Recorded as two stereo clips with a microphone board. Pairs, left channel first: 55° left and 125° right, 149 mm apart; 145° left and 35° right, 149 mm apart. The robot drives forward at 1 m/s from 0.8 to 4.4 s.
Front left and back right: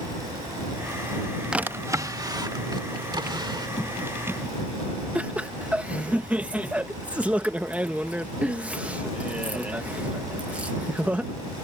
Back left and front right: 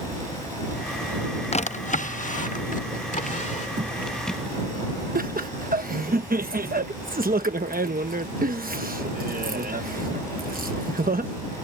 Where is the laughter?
45° right.